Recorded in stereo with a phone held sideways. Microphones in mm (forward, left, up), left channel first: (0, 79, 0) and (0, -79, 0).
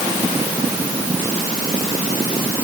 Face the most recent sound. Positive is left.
No sound to turn to.